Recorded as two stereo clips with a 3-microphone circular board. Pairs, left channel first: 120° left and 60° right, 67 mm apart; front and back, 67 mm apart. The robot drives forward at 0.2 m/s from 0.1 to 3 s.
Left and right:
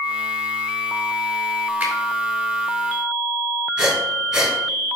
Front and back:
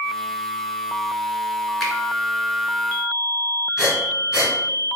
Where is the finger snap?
100° right, 1.3 m.